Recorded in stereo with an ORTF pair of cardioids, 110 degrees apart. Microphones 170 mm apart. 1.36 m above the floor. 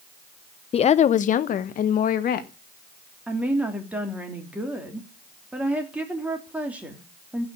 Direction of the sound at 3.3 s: 10° right.